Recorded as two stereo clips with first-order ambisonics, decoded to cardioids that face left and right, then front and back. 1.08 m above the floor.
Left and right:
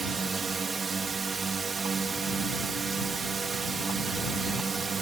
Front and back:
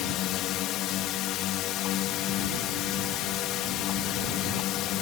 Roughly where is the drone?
Ahead.